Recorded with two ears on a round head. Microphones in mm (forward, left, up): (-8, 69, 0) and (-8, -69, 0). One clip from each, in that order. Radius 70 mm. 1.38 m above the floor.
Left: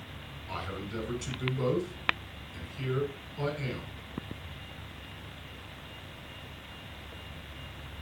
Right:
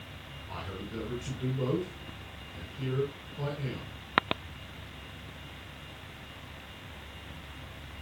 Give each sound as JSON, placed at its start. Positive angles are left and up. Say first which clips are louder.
{"t": 0.5, "sound": "a man speaking", "louder": "left 3 dB", "side_deg": 50, "distance_m": 8.5}